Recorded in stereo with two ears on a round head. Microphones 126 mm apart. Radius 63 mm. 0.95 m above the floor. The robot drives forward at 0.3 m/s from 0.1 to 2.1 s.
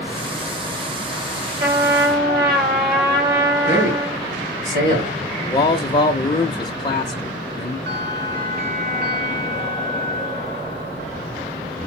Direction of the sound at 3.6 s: 65° right (ahead or behind).